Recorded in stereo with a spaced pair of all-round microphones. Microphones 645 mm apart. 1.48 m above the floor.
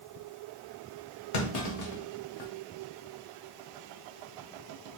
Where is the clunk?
75° left (ahead or behind), 0.9 m.